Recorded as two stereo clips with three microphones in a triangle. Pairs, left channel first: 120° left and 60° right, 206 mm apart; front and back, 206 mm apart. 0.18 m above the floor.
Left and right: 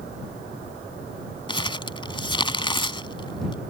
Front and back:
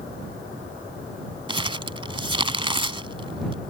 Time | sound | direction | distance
1.5 | crumpling | 150° left | ?